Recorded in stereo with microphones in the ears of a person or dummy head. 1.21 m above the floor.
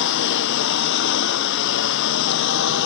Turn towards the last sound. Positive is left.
turn(degrees=60)  # may be behind; listen again after turning